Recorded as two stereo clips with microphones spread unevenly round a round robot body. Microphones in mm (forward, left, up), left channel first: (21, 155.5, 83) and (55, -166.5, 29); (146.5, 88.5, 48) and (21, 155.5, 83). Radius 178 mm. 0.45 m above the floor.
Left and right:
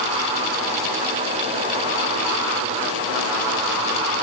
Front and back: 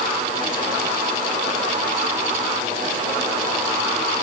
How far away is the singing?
No singing in this recording.